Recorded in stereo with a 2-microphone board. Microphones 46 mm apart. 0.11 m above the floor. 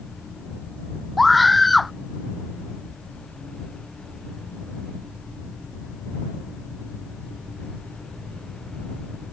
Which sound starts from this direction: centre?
A scream, at 1.2 s.